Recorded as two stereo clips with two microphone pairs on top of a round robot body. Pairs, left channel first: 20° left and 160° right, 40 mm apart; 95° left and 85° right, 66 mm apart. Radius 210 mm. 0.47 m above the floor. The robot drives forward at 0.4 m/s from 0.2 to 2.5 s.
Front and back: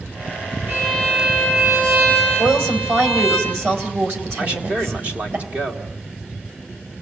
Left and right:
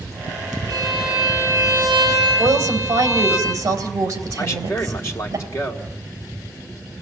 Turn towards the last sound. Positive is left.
turn(degrees=150)